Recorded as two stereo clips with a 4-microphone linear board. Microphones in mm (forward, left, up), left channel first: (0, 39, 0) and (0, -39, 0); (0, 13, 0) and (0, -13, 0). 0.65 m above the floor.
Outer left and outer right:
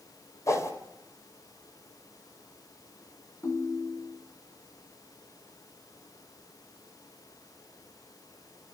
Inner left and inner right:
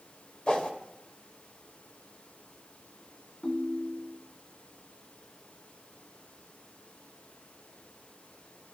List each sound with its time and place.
0.5 s a whoosh: 40° left (ahead or behind), 2.5 m
3.4 s a ringtone: 40° left (ahead or behind), 2 m